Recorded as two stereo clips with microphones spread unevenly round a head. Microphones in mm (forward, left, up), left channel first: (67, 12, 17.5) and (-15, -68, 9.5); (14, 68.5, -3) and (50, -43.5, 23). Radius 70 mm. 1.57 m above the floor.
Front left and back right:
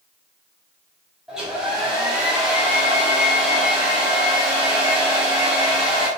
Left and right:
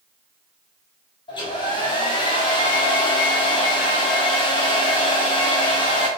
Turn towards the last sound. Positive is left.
turn(degrees=135)